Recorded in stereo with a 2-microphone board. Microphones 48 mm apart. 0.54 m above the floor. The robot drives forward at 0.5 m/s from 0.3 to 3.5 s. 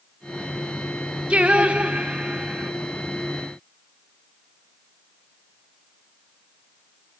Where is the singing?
25° right (ahead or behind), 0.7 m; by 2.7 s 15° right (ahead or behind), 1.0 m.